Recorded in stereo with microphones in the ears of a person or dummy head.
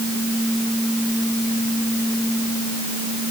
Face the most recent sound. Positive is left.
No sound to turn to.